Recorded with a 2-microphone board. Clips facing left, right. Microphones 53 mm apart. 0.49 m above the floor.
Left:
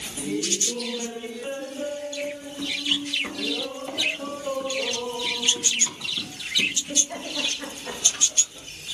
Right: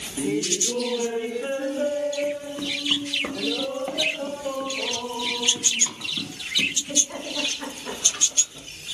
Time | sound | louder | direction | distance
0.2 | laughter | right 3 dB | 35° right (ahead or behind) | 1.6 m